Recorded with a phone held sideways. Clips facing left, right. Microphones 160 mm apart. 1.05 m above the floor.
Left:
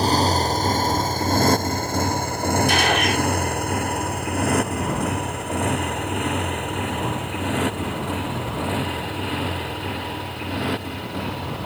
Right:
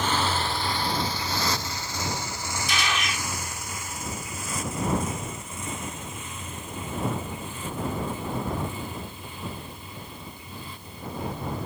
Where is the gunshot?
65° left (ahead or behind).